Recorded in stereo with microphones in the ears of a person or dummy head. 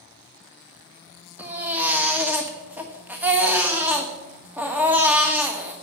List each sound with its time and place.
1.4 s a baby crying: 10° right (ahead or behind), 1.5 m